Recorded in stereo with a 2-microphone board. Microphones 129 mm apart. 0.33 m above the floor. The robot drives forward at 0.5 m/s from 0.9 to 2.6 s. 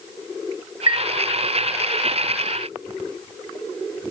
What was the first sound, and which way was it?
A chime, 70° left (ahead or behind).